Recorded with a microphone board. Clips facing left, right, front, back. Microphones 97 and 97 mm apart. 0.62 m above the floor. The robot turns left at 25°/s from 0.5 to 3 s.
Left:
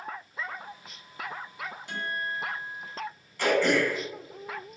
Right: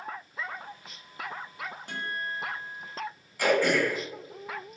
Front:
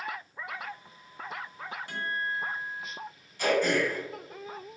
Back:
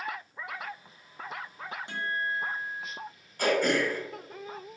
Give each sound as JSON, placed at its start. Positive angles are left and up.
{"t": 1.9, "sound": "a guitar", "azimuth_deg": -120, "distance_m": 1.1}
{"t": 3.4, "sound": "throat clearing", "azimuth_deg": -170, "distance_m": 1.2}